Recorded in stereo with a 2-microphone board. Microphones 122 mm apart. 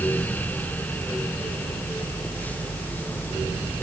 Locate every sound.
Only background noise.